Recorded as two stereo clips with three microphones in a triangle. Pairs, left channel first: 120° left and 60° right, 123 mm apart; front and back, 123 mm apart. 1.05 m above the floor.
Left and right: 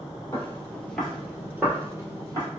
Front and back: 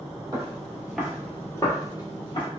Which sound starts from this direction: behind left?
Footsteps, at 0.3 s.